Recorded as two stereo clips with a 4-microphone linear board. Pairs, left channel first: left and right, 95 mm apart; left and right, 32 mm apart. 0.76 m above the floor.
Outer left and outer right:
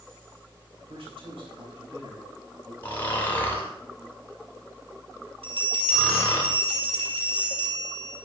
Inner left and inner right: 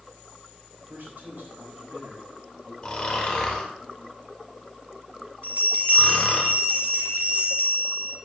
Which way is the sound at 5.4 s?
85° right.